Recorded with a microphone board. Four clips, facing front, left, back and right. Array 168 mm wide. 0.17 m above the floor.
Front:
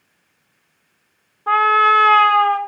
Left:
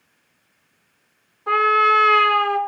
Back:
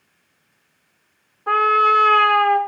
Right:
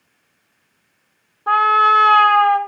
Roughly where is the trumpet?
Ahead right.